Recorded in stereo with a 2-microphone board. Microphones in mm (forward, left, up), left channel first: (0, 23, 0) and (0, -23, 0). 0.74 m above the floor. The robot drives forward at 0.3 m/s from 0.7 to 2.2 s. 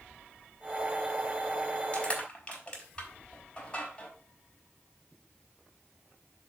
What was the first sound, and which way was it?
Crushing, 25° left (ahead or behind).